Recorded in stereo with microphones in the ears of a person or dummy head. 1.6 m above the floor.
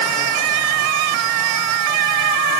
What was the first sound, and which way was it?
Only background noise.